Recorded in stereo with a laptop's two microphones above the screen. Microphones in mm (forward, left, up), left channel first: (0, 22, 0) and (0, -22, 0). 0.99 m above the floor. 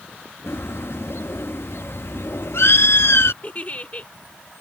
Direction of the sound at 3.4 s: 35° left (ahead or behind).